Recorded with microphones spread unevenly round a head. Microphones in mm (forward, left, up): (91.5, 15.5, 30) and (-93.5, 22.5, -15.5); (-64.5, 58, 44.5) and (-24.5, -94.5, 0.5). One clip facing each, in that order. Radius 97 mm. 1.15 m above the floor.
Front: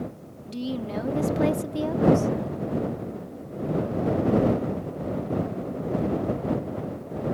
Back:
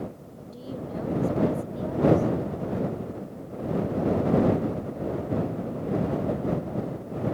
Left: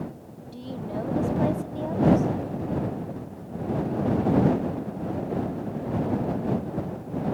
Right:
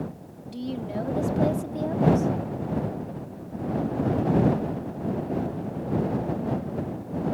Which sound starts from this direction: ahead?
A woman speaking, at 0.5 s.